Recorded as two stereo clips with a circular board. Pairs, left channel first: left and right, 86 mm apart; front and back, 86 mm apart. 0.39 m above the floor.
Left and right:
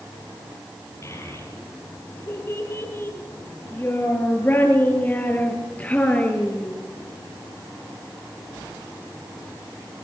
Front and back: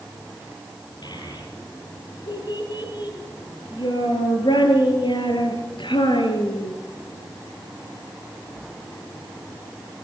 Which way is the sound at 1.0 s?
35° left.